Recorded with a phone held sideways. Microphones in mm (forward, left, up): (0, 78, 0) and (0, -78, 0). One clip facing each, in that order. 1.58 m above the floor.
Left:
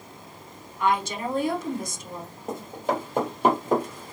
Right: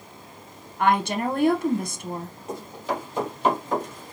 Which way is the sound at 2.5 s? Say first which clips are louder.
Left 3 dB; 50° left (ahead or behind).